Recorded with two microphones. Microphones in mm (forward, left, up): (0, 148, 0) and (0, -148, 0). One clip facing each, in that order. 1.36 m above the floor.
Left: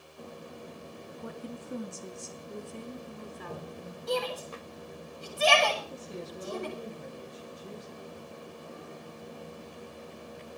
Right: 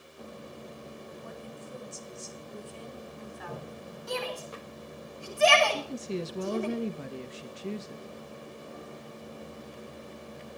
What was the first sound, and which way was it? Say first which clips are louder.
A woman speaking: left 3 dB; 85° left.